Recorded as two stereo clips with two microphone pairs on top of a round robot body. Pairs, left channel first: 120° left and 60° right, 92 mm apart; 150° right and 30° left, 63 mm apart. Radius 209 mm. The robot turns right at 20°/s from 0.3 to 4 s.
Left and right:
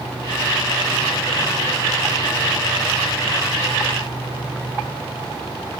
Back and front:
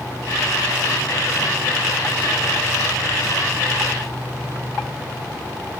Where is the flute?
No flute in this recording.